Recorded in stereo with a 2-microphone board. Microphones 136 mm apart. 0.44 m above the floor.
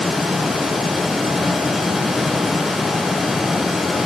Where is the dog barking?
I don't hear a dog barking.